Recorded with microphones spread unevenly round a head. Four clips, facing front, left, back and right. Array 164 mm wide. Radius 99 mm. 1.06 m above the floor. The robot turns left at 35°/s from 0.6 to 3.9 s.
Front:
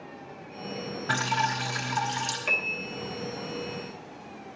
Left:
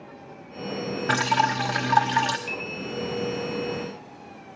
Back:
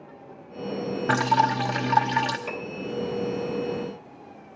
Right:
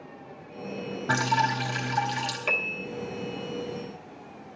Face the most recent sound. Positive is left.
turn(degrees=-120)